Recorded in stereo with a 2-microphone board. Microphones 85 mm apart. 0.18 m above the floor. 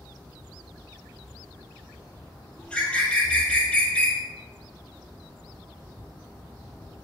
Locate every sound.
2.6 s a bird: 15° left (ahead or behind), 1.5 m